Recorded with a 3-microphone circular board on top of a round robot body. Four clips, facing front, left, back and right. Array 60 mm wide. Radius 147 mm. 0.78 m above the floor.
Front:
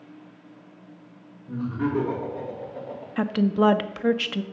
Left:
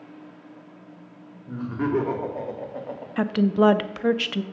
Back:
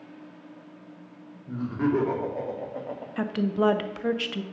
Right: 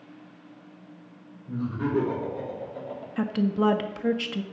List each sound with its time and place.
1.5 s laughter: 105° left, 3 m; by 3.1 s 125° left, 2 m
3.2 s a woman speaking: 60° left, 0.6 m